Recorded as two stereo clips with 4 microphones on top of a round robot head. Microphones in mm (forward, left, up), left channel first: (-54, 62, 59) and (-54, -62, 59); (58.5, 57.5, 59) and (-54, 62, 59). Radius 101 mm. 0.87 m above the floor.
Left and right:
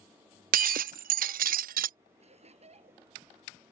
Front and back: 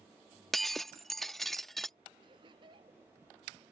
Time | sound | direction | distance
0.5 | breaking glass | 90° right | ?
2.2 | laughter | 125° right | ?